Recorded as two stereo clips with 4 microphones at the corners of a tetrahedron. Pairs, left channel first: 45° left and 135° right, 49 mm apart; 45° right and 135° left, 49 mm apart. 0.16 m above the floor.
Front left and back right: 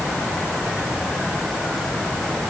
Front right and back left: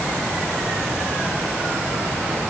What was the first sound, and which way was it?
Only background noise.